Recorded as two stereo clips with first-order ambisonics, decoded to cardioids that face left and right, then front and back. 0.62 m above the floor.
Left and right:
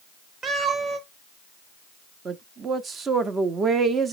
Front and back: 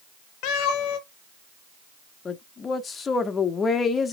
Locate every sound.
0.4 s a cat meowing: 20° right, 0.8 m
2.2 s a woman speaking: 50° right, 0.6 m